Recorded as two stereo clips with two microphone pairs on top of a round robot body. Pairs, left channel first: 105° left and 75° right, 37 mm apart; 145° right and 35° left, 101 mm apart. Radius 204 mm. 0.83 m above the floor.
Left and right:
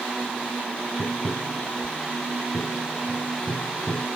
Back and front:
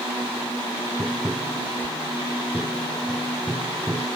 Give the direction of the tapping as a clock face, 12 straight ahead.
8 o'clock.